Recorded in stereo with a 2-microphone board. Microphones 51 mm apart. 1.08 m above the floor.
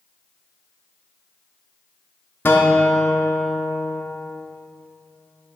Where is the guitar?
45° left (ahead or behind), 0.7 m.